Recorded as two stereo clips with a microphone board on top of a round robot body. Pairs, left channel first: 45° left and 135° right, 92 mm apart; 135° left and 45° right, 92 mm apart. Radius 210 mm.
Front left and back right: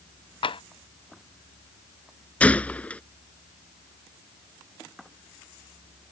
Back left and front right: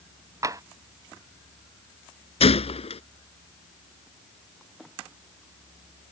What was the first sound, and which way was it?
Tapping, 15° left.